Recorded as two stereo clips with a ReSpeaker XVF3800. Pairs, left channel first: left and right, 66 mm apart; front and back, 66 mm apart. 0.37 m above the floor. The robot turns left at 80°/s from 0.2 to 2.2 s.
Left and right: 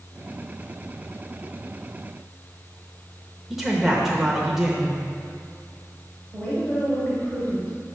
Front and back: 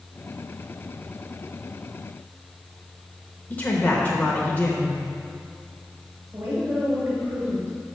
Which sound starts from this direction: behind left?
A woman speaking, at 6.3 s.